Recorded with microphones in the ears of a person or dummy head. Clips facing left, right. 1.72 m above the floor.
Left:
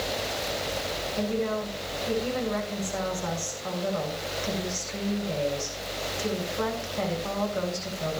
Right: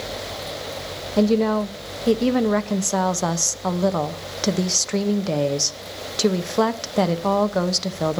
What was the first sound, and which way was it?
A woman speaking, 80° right.